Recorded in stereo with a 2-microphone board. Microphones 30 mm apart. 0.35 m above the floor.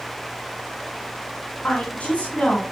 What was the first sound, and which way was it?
A woman speaking, 35° left (ahead or behind).